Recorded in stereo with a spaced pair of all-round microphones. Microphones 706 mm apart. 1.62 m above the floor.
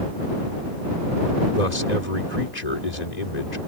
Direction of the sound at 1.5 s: 70° left (ahead or behind).